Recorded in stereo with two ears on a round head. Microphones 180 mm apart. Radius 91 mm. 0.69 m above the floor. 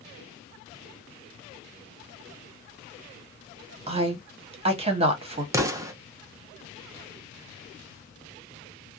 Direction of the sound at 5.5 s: 15° right (ahead or behind).